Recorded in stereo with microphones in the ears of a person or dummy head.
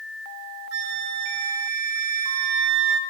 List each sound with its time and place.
0.7 s a flute: 70° right (ahead or behind), 1.2 m